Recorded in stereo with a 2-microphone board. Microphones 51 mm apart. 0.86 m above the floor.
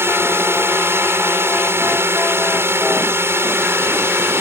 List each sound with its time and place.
0.0 s a drone: 55° right (ahead or behind)